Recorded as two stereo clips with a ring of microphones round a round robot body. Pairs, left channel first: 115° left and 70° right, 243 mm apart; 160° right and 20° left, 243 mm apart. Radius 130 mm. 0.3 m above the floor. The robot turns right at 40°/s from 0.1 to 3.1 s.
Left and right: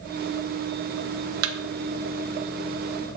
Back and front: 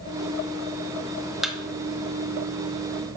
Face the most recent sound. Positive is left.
turn(degrees=0)